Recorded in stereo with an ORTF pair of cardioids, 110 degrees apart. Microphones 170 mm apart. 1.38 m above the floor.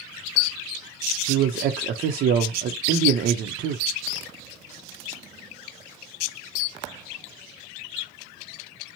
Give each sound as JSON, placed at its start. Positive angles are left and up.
{"t": 1.3, "sound": "a man speaking", "azimuth_deg": -60, "distance_m": 0.5}